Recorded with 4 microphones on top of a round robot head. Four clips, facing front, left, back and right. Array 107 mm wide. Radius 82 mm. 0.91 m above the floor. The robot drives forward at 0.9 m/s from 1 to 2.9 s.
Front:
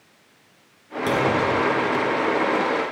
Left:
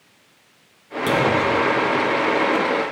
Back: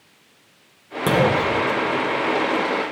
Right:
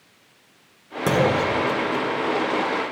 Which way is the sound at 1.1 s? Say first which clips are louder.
Left 1 dB, back 2 dB; 140° right.